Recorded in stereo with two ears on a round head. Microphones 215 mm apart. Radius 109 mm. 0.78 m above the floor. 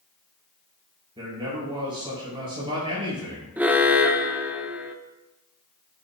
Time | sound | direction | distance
1.2 | a man speaking | 20° right (ahead or behind) | 5.5 m
3.6 | an alarm | 5° right (ahead or behind) | 0.8 m